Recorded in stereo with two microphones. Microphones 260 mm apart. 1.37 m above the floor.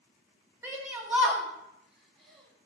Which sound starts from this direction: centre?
A shout, at 0.6 s.